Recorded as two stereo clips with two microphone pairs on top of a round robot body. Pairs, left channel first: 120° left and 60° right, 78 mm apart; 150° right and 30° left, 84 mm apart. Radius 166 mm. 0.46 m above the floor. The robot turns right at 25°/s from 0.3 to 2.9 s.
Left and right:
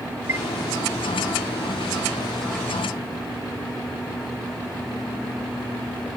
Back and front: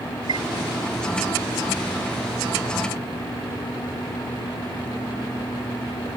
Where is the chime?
Straight ahead.